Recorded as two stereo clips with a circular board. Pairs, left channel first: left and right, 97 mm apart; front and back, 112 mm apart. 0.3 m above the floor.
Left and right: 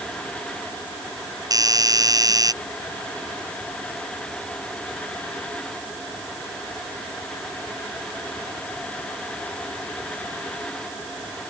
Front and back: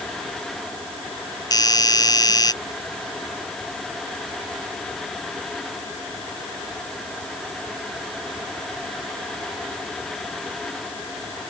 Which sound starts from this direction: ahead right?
A doorbell, at 1.5 s.